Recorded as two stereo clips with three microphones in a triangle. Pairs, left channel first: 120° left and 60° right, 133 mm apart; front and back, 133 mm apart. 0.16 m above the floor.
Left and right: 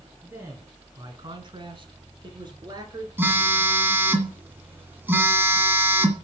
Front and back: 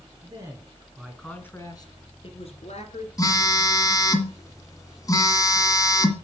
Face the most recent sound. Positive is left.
turn(degrees=-5)